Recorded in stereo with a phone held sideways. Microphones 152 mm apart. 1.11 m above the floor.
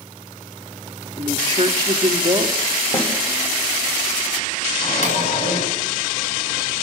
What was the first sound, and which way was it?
A woman speaking, 30° right (ahead or behind).